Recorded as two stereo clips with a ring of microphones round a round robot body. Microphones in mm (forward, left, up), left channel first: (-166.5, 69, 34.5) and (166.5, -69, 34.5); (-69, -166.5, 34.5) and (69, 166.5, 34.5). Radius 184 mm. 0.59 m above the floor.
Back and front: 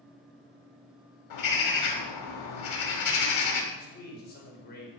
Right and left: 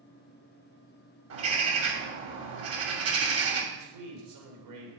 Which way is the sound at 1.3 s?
120° left.